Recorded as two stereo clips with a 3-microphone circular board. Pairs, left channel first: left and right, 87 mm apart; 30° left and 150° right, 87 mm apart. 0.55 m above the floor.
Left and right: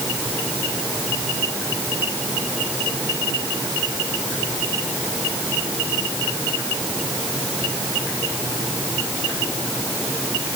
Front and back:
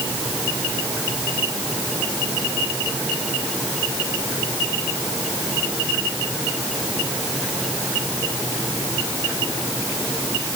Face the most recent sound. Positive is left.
No sound to turn to.